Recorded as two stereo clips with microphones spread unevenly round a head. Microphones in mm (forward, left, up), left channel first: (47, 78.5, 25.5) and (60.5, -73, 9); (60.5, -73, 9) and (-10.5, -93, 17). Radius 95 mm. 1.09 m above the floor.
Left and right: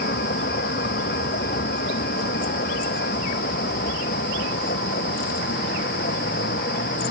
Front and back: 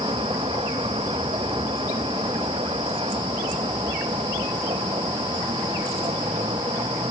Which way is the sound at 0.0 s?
140° left.